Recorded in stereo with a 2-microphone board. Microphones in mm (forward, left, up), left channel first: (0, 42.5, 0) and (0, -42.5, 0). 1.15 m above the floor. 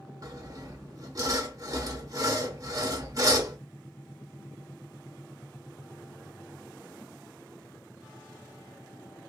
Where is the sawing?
40° right (ahead or behind), 0.7 m.